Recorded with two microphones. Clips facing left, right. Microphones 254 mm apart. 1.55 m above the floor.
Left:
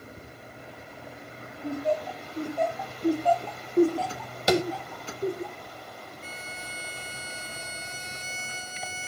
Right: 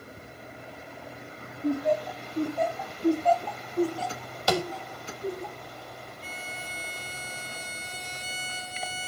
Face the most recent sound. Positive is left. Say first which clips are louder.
# right 1 dB
turn(degrees=45)  # may be behind; listen again after turning